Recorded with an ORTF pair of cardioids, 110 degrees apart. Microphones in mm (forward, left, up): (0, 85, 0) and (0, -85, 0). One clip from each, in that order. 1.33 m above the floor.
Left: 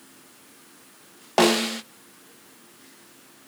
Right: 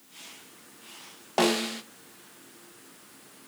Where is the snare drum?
25° left, 0.7 m.